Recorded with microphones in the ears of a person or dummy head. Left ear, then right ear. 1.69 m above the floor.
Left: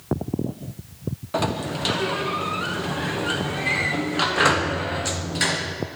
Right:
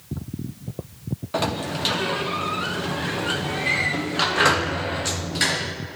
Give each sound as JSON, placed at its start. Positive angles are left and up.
{"t": 1.3, "sound": "a sliding door", "side_deg": -5, "distance_m": 0.8}